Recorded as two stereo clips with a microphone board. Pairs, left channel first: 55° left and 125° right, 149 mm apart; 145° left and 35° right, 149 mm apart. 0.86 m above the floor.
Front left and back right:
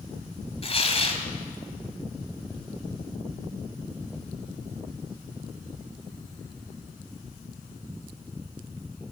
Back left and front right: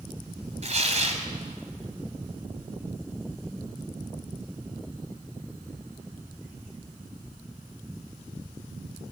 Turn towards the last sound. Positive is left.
turn(degrees=5)